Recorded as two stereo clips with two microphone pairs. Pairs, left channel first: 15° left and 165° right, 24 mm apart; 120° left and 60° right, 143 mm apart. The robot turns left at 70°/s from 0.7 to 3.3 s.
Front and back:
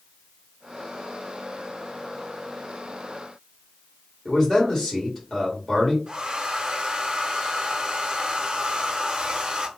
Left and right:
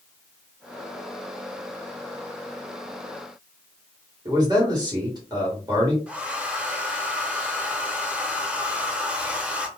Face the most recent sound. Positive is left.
turn(degrees=-135)